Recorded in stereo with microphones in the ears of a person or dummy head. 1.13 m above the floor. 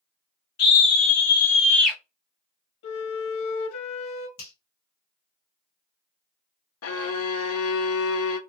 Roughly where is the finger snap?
Left.